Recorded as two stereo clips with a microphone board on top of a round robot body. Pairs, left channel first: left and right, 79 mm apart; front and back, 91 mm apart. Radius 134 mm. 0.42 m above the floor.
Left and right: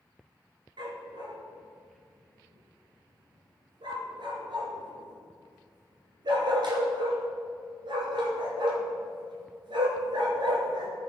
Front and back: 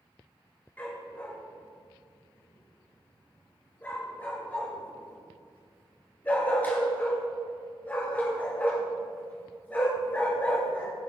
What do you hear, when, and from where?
0.8 s a dog barking: 75° right, 2 m